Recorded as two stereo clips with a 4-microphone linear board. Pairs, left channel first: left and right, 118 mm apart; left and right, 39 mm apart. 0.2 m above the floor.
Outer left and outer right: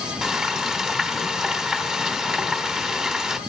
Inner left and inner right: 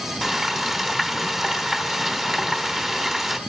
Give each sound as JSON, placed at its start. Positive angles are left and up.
{"t": 0.2, "sound": "frying", "side_deg": -5, "distance_m": 1.1}